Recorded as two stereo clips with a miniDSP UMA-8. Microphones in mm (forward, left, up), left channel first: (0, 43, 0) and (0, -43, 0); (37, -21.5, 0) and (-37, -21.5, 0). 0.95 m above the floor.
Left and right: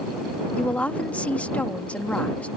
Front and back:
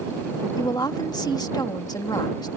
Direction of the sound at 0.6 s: 15° left.